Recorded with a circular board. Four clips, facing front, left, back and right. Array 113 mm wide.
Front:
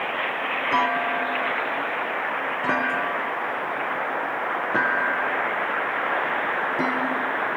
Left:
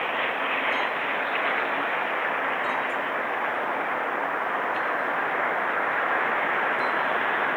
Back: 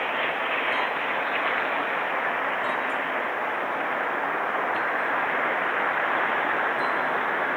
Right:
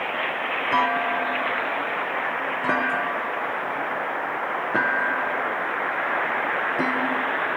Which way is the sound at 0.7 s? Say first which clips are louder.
Right 5 dB, front 4 dB; 50° right.